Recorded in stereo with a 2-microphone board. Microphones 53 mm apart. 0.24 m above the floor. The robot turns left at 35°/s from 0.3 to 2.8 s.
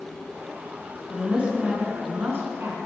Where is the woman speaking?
15° right, 3 m; by 2.8 s 75° right, 3 m.